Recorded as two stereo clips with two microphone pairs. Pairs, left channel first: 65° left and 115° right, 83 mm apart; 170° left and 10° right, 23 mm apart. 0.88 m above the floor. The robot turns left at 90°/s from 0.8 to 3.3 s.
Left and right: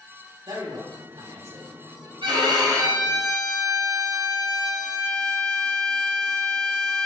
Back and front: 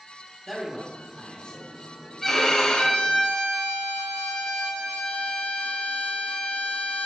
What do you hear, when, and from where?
0.5 s a man speaking: 95° right, 3 m; by 1.7 s 175° right, 3 m
2.2 s a violin: 105° right, 5 m; by 7.1 s 155° left, 5 m